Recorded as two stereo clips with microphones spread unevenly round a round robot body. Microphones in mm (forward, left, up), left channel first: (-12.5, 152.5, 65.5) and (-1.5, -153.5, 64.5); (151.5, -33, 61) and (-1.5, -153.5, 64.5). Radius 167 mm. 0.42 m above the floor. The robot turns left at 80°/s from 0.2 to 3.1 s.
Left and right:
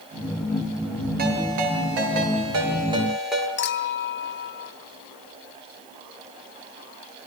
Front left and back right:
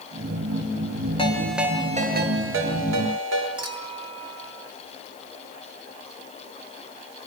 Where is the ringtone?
25° right, 6.5 m; by 3.5 s 175° right, 6.5 m.